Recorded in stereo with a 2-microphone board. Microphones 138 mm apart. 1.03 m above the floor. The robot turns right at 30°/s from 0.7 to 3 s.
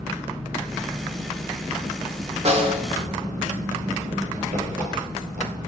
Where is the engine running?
170° right, 8 m; by 5.7 s 100° right, 8 m.